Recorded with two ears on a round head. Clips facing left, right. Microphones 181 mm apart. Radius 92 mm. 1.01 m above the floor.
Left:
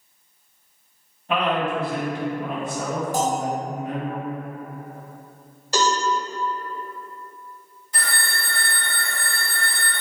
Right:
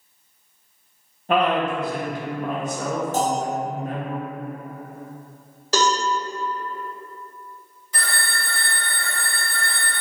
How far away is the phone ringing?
About 1.2 m.